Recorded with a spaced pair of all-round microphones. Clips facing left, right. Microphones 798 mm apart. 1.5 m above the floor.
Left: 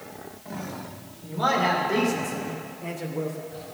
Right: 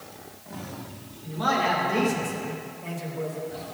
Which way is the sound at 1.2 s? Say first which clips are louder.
Left 1 dB; 80° left.